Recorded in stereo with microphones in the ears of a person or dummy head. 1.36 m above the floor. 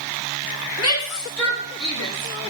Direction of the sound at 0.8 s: 80° left.